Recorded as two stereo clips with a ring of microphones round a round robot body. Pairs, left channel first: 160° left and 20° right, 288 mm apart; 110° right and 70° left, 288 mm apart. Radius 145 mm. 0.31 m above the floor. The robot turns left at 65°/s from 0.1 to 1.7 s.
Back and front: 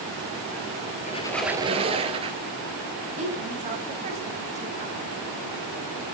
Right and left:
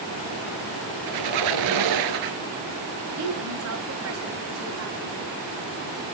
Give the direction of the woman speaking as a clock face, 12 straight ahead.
11 o'clock.